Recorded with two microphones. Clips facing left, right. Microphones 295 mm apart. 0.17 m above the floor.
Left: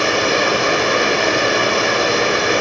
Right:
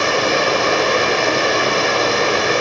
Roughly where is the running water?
Centre.